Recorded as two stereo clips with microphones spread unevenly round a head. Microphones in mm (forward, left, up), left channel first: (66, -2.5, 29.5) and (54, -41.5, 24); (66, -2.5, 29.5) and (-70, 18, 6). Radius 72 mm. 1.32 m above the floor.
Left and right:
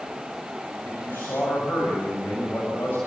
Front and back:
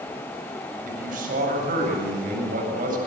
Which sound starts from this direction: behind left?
A man speaking, at 0.8 s.